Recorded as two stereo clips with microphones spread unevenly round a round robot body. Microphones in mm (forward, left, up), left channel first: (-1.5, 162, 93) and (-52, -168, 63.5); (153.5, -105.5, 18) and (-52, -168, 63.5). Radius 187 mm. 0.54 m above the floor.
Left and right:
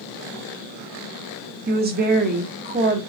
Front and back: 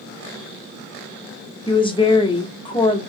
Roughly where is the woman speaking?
Ahead right.